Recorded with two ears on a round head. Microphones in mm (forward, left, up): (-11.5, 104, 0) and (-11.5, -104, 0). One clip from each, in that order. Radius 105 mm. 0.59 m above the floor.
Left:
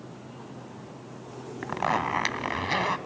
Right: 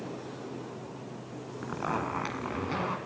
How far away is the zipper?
About 1.6 m.